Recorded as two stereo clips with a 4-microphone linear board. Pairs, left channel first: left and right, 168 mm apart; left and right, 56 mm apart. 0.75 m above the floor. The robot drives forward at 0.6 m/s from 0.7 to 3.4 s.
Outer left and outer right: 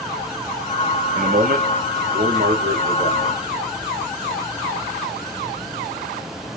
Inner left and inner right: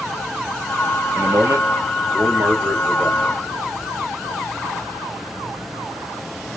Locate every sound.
1.1 s a man speaking: 60° right (ahead or behind), 1.0 m; by 3.3 s 35° right (ahead or behind), 1.6 m